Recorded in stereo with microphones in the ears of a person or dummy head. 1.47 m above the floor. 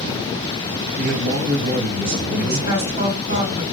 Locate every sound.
1.0 s a man speaking: 60° right (ahead or behind), 1.6 m
2.4 s a woman speaking: 65° right (ahead or behind), 1.8 m